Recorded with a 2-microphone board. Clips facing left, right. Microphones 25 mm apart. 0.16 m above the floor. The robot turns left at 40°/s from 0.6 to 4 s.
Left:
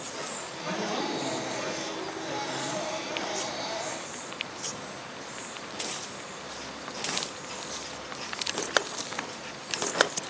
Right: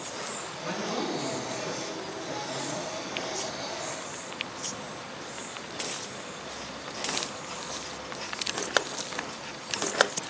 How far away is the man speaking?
About 2 m.